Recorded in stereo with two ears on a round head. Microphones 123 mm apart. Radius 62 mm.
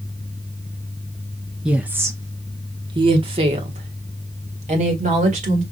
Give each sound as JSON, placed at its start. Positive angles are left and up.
{"t": 1.6, "sound": "a woman speaking", "side_deg": -5, "distance_m": 0.8}